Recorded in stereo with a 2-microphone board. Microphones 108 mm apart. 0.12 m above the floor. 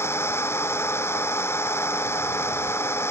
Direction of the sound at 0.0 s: 25° left (ahead or behind).